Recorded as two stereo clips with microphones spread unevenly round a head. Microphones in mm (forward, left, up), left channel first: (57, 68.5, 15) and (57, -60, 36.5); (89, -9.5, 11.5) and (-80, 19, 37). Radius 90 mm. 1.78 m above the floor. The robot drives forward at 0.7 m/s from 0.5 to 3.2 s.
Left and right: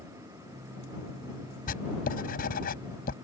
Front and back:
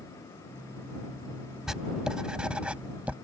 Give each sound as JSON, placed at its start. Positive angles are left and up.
{"t": 1.7, "sound": "writing", "azimuth_deg": 85}